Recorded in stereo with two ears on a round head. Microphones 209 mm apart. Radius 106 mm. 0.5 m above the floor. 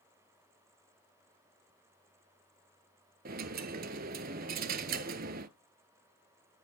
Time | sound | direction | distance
3.2 | a dropped coin | 40° right (ahead or behind) | 0.6 m